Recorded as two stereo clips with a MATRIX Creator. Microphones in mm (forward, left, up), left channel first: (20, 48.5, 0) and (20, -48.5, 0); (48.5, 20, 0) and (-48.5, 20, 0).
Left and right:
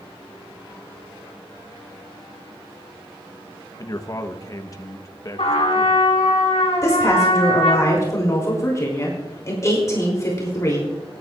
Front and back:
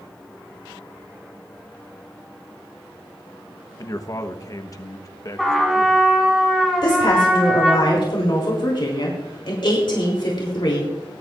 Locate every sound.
3.8 s a man speaking: 45° left, 1.0 m
5.4 s a trumpet: 85° left, 2.5 m
6.8 s a woman speaking: 35° left, 3.5 m